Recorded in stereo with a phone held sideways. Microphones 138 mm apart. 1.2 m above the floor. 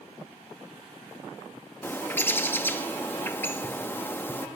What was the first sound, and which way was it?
A bird, 15° left (ahead or behind).